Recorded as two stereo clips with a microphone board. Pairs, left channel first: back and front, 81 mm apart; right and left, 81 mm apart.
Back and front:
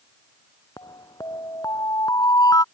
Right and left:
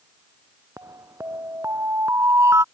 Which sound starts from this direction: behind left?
An alarm, at 0.8 s.